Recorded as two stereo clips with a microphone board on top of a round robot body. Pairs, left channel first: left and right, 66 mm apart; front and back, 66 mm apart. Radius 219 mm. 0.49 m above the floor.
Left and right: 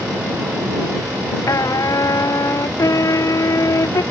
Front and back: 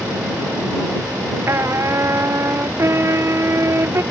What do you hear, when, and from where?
1.5 s a trumpet: 130° left